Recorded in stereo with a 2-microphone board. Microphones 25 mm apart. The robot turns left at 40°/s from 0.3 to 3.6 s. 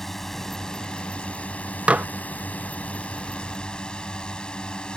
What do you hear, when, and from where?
0.0 s a drone: 170° left; by 5.0 s 40° left
1.9 s dishes clattering: 60° right (ahead or behind)